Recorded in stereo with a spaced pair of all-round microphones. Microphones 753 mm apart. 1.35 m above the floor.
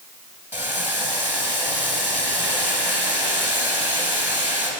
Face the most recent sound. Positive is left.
turn(degrees=10)  # may be behind; listen again after turning